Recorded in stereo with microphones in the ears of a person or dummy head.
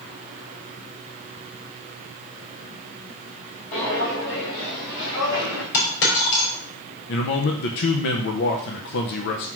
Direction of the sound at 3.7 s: 40° left (ahead or behind).